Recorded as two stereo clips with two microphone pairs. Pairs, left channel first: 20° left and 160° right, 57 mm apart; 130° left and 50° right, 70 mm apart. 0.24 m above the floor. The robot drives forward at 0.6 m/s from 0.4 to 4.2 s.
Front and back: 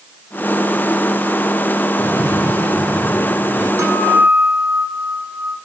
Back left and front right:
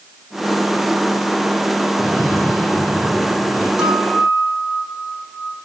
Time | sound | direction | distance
2.0 | a cough | 130° right | 4.5 m
3.8 | a guitar | 130° right | 6 m